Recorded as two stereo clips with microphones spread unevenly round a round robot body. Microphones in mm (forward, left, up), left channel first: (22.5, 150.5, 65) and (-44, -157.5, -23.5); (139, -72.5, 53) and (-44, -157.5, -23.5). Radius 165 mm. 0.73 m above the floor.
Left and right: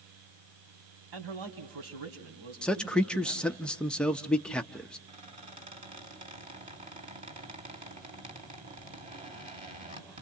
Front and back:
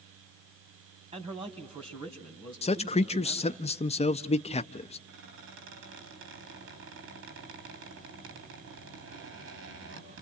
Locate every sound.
1.1 s a man speaking: 95° right, 4.5 m
2.6 s a man speaking: 45° right, 0.6 m
5.1 s a squeak: 175° right, 4 m